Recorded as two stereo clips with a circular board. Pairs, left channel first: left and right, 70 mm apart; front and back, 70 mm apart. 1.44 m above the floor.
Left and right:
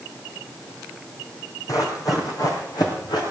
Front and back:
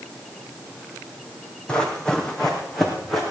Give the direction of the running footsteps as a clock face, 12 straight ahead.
10 o'clock.